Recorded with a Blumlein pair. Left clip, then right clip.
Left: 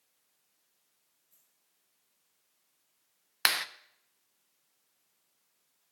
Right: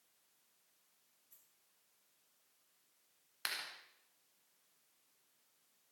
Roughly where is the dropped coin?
Ahead right.